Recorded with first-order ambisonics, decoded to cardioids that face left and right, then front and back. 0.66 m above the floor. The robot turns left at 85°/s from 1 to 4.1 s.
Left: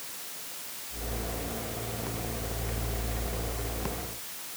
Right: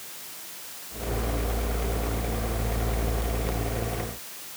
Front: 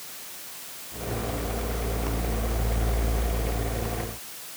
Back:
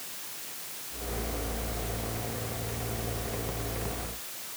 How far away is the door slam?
I don't hear a door slam.